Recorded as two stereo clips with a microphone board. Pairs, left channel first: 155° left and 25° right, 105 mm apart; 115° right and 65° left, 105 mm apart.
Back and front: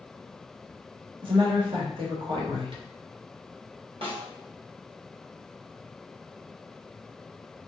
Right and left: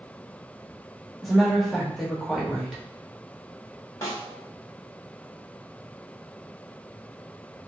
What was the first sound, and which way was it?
A woman speaking, 25° right.